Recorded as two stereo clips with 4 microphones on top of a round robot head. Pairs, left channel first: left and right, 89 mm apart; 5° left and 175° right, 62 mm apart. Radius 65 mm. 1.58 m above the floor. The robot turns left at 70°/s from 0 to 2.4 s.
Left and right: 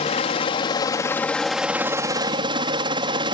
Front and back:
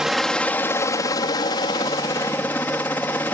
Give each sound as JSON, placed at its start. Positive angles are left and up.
{"t": 0.0, "sound": "a helicopter", "azimuth_deg": 105}